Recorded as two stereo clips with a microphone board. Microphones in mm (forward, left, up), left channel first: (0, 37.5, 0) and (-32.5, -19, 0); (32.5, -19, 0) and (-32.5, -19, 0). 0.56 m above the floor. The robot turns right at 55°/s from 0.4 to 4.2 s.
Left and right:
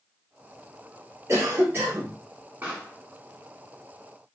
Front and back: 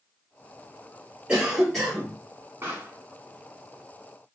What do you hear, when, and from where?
1.3 s a cough: 110° right, 1.6 m; by 2.1 s 65° right, 1.6 m
2.6 s a pop: 160° right, 1.3 m; by 3.0 s 140° right, 1.3 m